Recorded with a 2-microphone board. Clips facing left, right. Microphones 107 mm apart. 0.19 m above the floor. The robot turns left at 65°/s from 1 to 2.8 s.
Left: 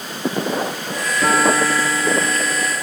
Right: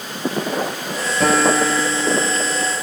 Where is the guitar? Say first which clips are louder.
Right 1 dB; 65° right, 4 m; by 2.7 s 165° right, 4 m.